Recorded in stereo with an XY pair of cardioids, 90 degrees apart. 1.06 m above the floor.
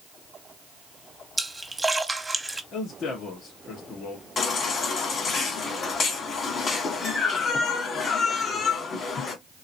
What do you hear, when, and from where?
1.4 s a splash: 15° right, 1.0 m
2.7 s a man speaking: 65° left, 2 m
4.4 s a baby crying: 55° left, 1.6 m